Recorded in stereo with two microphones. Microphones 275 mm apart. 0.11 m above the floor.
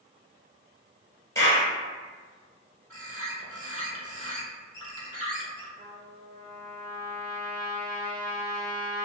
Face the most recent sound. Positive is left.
turn(degrees=-35)  # may be behind; listen again after turning